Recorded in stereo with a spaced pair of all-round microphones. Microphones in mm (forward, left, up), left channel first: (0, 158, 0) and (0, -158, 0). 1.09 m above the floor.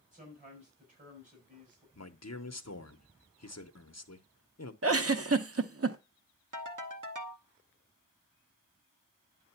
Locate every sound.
0.1 s a man speaking: 25° right (ahead or behind), 4 m
1.9 s a man speaking: 55° left (ahead or behind), 0.9 m
4.8 s a giggle: 45° right (ahead or behind), 0.7 m
6.5 s a ringtone: 70° right (ahead or behind), 1.0 m